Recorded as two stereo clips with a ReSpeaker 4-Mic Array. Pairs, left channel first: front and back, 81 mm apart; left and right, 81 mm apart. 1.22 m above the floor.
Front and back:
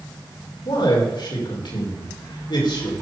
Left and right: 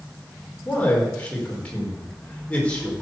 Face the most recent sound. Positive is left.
turn(degrees=15)